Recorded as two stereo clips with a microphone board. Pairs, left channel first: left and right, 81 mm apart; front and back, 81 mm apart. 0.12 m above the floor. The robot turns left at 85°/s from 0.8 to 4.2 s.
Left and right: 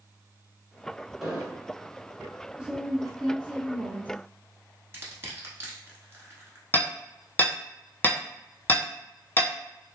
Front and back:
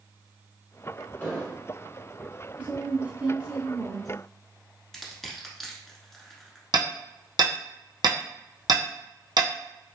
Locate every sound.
1.2 s an explosion: 5° right, 1.4 m; by 1.7 s 45° right, 1.4 m
2.6 s a woman speaking: 150° right, 1.1 m; by 4.1 s 80° left, 1.1 m
4.9 s crushing: 80° right, 0.9 m
6.7 s hammering: 155° left, 1.0 m